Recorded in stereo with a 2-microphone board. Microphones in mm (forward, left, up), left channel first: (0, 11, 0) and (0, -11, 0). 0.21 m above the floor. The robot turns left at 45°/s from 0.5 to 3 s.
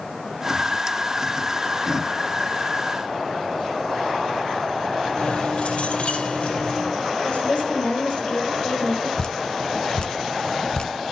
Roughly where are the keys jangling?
Left.